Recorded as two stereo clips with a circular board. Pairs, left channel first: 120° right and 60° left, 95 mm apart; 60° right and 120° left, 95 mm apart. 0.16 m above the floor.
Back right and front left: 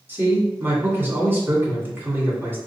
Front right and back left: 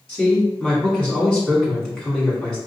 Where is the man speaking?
15° left, 1.6 m.